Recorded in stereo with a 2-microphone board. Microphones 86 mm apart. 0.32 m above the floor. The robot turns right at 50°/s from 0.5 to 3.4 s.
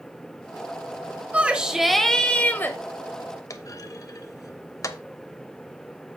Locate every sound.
1.3 s a shout: 30° right, 1.3 m; by 2.8 s 45° left, 1.3 m
3.5 s a clunk: 40° left (ahead or behind), 0.7 m